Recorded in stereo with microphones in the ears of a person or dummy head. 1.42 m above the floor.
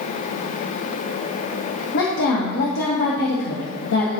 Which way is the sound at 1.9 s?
65° left (ahead or behind).